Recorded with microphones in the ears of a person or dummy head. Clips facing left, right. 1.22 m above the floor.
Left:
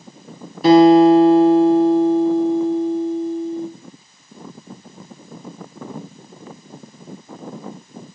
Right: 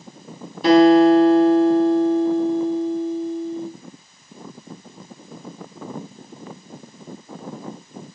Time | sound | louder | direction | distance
0.6 | a guitar | left 3 dB | centre (ahead or behind) | 8 m